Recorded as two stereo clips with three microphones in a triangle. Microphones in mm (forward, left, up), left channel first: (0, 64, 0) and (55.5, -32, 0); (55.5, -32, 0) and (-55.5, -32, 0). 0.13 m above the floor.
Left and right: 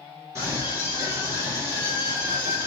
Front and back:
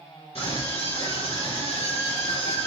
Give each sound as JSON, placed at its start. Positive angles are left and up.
{"t": 0.3, "sound": "a scream", "azimuth_deg": 5, "distance_m": 3.5}